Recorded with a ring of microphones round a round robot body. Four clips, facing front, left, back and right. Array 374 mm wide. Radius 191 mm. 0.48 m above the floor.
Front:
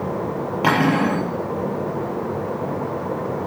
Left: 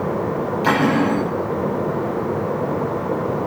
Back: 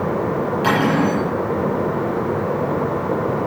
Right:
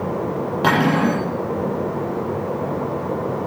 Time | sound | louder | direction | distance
0.6 | cutlery clinking | even, even | 55° right | 8 m